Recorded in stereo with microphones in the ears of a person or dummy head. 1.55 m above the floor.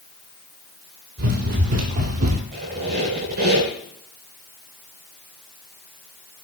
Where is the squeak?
50° right (ahead or behind), 8.5 m.